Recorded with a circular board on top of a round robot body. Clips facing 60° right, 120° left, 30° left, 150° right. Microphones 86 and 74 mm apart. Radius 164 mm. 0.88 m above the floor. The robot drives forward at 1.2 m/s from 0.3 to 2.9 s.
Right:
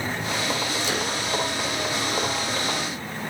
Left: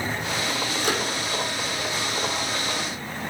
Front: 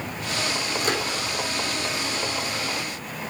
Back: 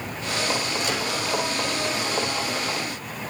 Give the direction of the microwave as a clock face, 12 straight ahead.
9 o'clock.